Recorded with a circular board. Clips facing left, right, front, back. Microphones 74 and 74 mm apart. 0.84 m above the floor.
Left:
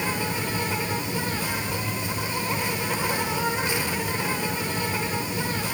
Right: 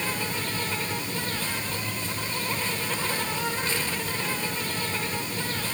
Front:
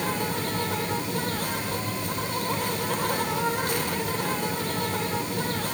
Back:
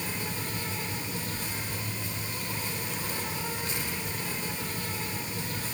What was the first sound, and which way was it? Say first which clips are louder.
An insect: left 3 dB, front 8 dB; 15° left.